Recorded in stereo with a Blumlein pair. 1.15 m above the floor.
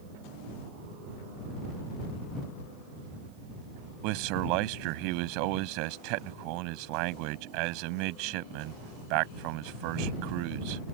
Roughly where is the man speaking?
Ahead right.